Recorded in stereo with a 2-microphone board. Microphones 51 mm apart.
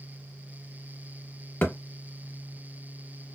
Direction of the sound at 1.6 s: 40° left (ahead or behind).